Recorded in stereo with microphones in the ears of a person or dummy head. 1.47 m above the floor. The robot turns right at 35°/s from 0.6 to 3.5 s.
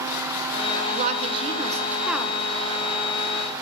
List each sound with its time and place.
0.9 s a woman speaking: 55° right, 0.5 m; by 2.4 s 5° right, 0.5 m